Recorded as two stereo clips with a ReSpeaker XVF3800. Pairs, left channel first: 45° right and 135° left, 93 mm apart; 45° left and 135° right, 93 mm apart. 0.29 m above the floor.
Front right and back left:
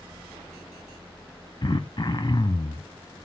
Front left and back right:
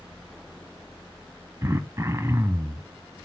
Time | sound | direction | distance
1.6 | throat clearing | 80° right | 0.6 m